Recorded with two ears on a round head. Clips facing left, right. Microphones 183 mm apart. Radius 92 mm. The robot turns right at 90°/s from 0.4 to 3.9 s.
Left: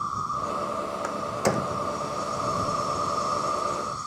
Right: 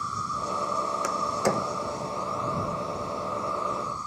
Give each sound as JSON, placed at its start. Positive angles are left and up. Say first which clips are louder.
{"t": 0.0, "sound": "an insect", "louder": "left 1 dB", "azimuth_deg": -150}
{"t": 1.0, "sound": "a door slam", "louder": "left 1 dB", "side_deg": -40}